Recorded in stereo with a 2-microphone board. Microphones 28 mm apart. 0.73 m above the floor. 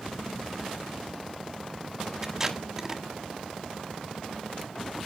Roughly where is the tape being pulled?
Centre.